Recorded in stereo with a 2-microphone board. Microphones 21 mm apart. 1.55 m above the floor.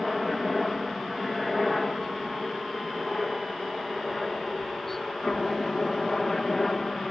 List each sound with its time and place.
0.0 s a helicopter: 5° left (ahead or behind); by 7.1 s 20° left (ahead or behind)